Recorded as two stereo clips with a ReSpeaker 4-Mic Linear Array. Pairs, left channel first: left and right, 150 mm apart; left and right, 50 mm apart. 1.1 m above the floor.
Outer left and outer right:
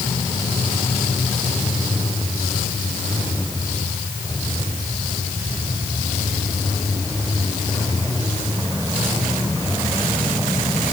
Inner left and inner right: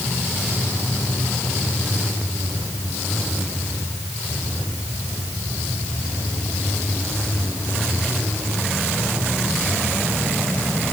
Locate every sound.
Only background noise.